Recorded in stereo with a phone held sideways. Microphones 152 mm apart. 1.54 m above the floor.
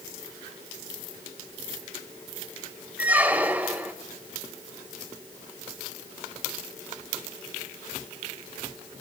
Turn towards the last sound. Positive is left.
turn(degrees=-10)  # may be behind; listen again after turning